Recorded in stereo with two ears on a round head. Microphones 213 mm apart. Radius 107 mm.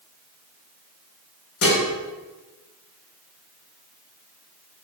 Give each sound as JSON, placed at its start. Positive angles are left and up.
{"t": 1.6, "sound": "dishes clattering", "side_deg": 70, "distance_m": 2.5}